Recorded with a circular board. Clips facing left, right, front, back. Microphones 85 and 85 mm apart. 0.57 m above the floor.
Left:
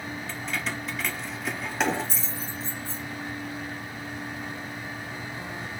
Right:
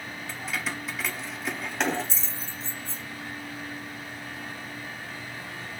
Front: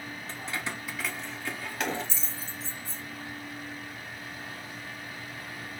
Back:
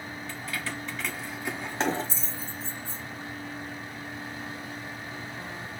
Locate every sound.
0.3 s keys jangling: 10° right, 0.7 m; by 3.0 s 175° left, 1.2 m